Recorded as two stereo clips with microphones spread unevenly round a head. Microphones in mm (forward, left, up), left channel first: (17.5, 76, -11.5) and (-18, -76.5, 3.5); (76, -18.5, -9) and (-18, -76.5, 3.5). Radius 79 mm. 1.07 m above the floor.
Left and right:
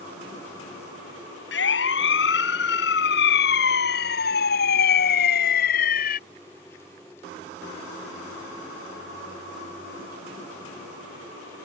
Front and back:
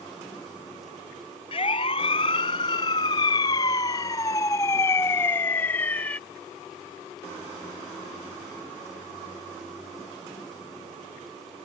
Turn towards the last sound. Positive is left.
turn(degrees=115)